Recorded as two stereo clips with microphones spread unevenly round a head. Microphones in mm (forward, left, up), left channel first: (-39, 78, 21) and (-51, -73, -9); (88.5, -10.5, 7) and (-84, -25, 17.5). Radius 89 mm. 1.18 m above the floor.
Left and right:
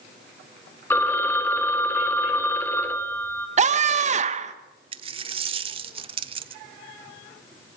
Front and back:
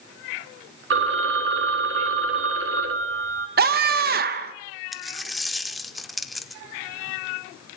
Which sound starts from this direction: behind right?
A scream, at 3.6 s.